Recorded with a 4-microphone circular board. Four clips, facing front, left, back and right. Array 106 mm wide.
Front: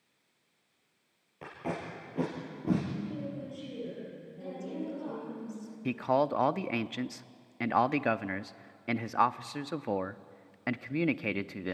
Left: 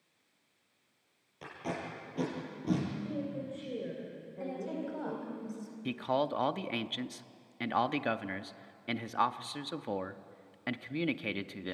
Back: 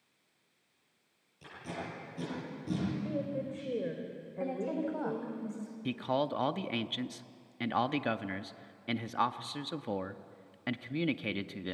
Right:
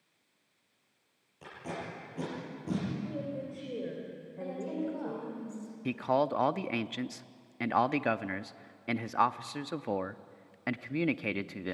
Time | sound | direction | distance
1.4 | tape being pulled | 15° left | 7.5 m
3.0 | a woman speaking | 175° right | 3 m
4.4 | a woman speaking | 170° left | 4 m
5.8 | a man speaking | 30° right | 0.5 m